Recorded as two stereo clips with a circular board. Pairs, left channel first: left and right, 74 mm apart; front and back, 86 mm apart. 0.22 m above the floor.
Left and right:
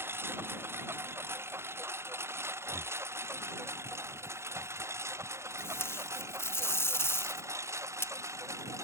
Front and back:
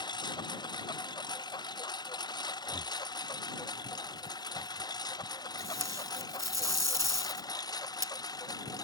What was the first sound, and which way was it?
A lawn mower, 30° right.